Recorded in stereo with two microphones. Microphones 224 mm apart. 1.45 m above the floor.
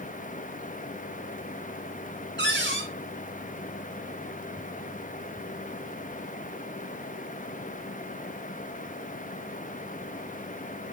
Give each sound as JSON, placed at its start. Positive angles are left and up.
{"t": 2.4, "sound": "a cupboard door", "side_deg": -55, "distance_m": 1.9}